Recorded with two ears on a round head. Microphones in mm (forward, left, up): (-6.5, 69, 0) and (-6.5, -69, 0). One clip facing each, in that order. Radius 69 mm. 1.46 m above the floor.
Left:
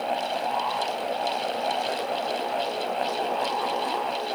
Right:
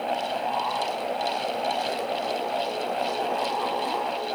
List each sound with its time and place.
Only background noise.